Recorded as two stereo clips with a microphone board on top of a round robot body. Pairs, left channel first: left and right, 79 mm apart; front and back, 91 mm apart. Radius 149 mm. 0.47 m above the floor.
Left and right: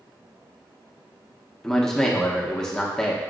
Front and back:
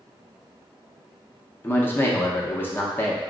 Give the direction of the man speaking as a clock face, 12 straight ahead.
11 o'clock.